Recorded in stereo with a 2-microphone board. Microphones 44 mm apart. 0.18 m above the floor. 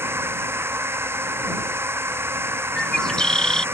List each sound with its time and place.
0.0 s a drone: 70° right (ahead or behind)
2.8 s a bird: 15° left (ahead or behind)